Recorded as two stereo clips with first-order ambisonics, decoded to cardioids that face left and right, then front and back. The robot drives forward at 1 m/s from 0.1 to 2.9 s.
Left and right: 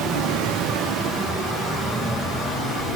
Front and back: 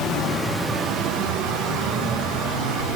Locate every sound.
0.0 s running water: 45° right, 0.7 m; by 3.0 s 170° right, 2.5 m